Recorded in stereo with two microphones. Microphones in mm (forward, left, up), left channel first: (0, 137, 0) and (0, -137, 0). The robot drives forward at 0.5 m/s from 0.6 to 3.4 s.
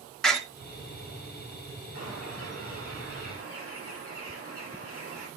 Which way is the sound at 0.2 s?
Centre (ahead or behind).